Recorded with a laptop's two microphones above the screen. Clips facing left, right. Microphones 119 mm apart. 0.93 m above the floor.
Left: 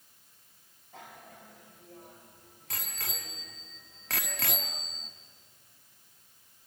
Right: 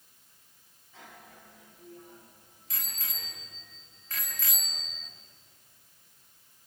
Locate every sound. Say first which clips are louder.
0.9 s a bicycle bell: left 2 dB; 55° left (ahead or behind), 3.5 m; by 5.1 s 35° left (ahead or behind), 1.0 m